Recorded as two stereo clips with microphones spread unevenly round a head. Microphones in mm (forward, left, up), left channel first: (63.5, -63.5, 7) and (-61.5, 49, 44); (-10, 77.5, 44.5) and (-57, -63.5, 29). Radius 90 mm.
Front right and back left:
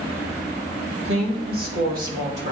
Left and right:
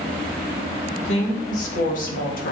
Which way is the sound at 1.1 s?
110° left.